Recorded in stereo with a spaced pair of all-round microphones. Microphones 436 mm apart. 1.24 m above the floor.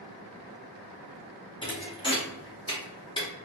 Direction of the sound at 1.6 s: 10° left (ahead or behind).